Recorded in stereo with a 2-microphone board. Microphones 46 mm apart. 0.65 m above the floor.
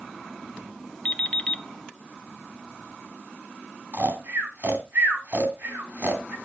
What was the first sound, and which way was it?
An alarm clock, 20° left (ahead or behind).